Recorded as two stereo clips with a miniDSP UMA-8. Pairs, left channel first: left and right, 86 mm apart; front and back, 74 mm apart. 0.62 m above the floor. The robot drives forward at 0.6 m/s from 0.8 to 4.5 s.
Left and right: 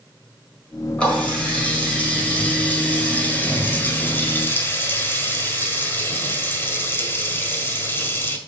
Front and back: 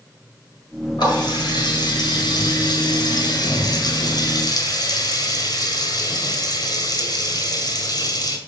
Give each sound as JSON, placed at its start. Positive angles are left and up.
{"t": 1.0, "sound": "a running tap", "azimuth_deg": 10, "distance_m": 4.0}